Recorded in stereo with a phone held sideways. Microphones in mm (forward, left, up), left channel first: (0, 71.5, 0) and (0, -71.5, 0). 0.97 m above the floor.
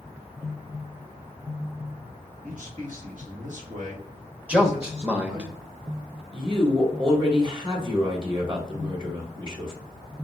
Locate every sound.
2.4 s a man speaking: 65° right (ahead or behind), 1.7 m; by 5.5 s 40° right (ahead or behind), 1.8 m
4.5 s a man speaking: 10° right (ahead or behind), 0.9 m
6.3 s a woman speaking: 35° right (ahead or behind), 1.6 m